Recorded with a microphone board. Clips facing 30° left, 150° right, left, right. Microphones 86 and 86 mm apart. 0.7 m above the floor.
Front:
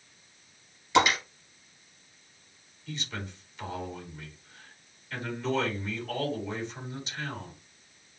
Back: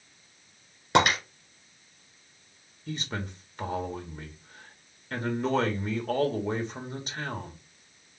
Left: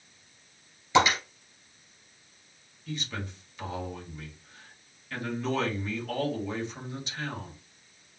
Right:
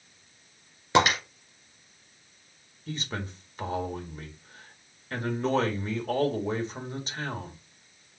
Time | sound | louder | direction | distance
0.9 | breaking glass | back 1 dB, even | 125° right | 2.5 m
2.9 | a man speaking | back 4 dB, right 1 dB | 125° right | 1.3 m